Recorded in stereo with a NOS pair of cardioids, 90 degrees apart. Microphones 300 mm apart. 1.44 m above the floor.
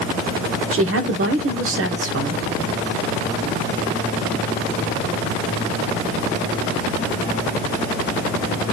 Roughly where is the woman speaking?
Ahead right.